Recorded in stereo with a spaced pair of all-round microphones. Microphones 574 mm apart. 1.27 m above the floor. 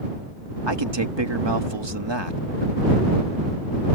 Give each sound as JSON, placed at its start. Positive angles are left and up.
{"t": 0.7, "sound": "a man speaking", "side_deg": -45}